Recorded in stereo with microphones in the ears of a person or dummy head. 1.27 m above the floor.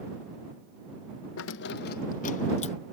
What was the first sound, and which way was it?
Keys jangling, 75° left (ahead or behind).